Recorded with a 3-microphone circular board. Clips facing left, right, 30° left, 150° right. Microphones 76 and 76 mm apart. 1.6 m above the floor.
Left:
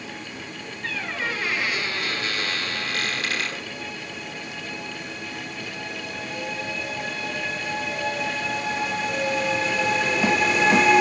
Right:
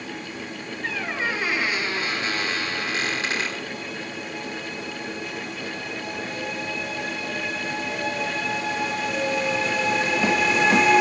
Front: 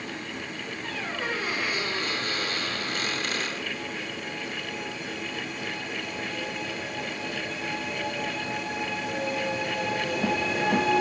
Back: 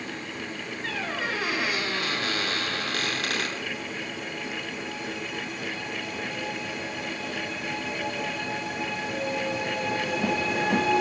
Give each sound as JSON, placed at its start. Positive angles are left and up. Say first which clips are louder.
{"t": 0.8, "sound": "a squeak", "louder": "right 2 dB, back 2 dB", "azimuth_deg": -155, "distance_m": 9.5}